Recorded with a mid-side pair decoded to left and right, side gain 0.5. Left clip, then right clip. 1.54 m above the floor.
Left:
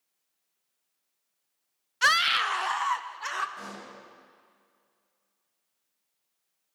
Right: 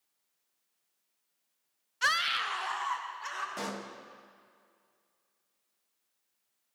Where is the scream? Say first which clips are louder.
Left 6 dB; 35° left, 0.6 m; by 3.5 s 45° left, 2.0 m.